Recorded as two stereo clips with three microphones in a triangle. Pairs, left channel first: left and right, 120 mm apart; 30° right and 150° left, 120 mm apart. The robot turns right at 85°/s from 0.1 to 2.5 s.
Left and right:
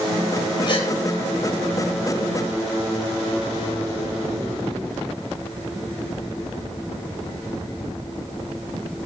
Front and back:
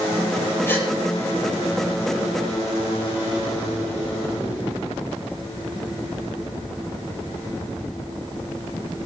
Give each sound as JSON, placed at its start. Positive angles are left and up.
{"t": 0.7, "sound": "a gasp", "azimuth_deg": 40, "distance_m": 3.5}